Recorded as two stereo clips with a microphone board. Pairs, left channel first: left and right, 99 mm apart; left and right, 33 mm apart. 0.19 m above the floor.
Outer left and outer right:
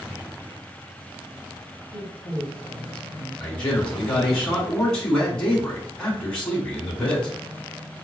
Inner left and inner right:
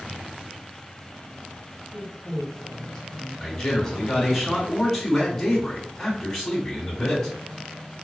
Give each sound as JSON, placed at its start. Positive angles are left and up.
{"t": 1.9, "sound": "a woman speaking", "side_deg": 10, "distance_m": 1.2}
{"t": 3.4, "sound": "a man speaking", "side_deg": 10, "distance_m": 1.9}